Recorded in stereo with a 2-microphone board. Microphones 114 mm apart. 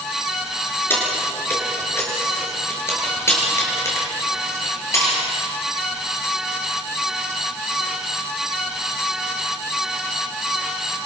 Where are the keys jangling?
20° left (ahead or behind), 6.5 m; by 5.2 s 25° left (ahead or behind), 8.5 m.